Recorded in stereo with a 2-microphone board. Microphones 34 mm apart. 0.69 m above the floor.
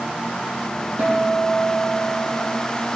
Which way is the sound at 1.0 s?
65° right (ahead or behind).